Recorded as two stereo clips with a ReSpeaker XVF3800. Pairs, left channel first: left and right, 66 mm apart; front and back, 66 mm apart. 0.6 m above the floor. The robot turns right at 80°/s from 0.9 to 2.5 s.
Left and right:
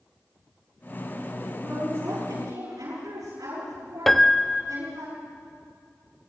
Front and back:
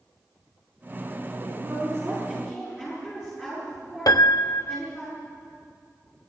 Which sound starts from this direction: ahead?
A piano, at 4.1 s.